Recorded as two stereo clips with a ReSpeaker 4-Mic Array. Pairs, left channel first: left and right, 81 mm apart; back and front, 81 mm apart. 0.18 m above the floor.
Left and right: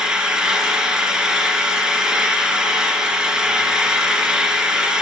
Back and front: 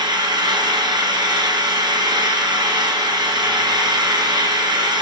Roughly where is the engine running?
Ahead.